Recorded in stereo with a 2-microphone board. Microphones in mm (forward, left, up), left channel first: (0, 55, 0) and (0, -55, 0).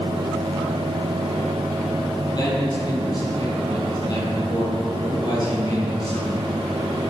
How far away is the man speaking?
About 6 m.